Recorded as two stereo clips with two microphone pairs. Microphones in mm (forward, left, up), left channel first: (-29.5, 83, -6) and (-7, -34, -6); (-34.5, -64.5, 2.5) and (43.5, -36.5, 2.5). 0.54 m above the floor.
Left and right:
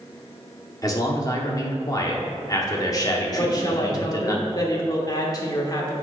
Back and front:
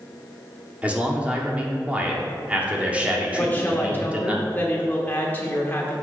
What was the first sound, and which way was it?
A man speaking, 80° left.